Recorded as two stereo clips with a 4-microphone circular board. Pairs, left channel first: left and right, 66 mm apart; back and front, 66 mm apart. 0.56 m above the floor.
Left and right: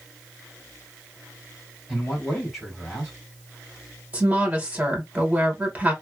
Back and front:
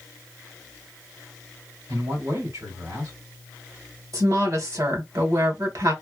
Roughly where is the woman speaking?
Ahead.